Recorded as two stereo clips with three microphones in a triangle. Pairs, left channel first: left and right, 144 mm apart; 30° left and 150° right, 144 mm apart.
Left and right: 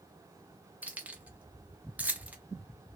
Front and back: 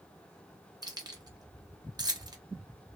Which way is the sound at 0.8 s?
155° right.